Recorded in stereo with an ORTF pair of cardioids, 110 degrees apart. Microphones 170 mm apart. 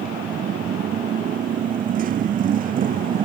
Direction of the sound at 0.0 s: 50° right.